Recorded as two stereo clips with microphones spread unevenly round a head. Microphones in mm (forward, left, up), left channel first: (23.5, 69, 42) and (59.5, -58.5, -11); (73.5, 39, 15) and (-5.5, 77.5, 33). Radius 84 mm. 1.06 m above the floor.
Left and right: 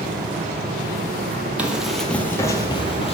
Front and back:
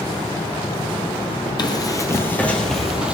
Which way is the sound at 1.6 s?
15° left.